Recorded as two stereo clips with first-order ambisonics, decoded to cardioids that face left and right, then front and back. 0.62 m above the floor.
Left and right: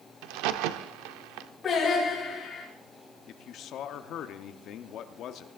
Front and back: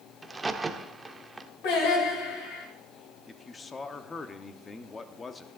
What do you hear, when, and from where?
0.2 s a crack: 100° right, 0.7 m
1.6 s singing: 20° left, 6 m
3.3 s a man speaking: 65° left, 0.8 m